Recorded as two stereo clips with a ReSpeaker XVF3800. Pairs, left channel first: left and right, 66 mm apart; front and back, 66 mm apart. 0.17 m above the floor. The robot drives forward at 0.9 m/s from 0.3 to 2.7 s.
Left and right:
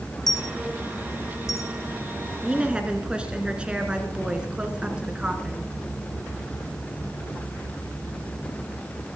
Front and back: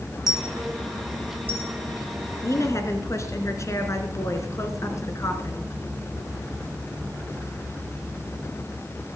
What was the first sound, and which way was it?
A dropped coin, 95° left.